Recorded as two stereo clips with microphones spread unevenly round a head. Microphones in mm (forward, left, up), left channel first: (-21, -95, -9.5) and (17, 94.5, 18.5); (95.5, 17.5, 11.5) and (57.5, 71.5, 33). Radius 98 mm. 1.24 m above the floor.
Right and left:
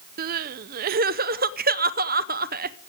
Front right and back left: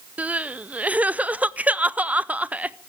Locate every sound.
0.2 s crying: 45° left, 0.6 m